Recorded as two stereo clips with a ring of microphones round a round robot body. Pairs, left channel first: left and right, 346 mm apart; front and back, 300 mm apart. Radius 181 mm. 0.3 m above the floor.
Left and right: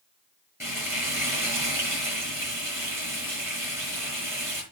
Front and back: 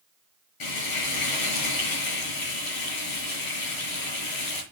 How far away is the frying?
About 6 m.